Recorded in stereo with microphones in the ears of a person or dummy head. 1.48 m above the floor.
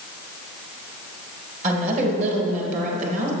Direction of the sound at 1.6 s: 45° right (ahead or behind).